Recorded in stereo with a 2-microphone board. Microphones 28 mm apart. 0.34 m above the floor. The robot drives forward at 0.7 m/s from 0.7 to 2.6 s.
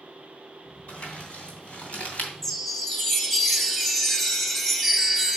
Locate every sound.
0.9 s crumpling: 45° left (ahead or behind), 3 m; by 2.3 s 55° left (ahead or behind), 2.5 m
2.4 s a chime: 5° left (ahead or behind), 0.6 m